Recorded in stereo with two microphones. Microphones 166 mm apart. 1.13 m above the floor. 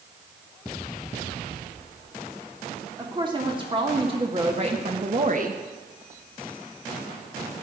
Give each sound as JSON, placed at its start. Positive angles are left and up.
{"t": 3.0, "sound": "a woman speaking", "side_deg": -25, "distance_m": 3.0}